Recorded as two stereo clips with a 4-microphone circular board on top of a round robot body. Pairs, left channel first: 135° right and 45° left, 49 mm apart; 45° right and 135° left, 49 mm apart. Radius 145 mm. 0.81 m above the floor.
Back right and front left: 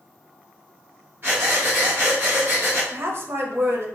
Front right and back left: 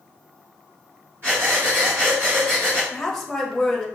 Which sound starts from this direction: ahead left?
A woman speaking, at 2.9 s.